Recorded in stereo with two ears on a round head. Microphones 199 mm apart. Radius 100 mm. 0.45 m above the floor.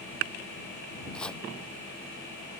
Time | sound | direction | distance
1.1 | chopping | 5° left (ahead or behind) | ?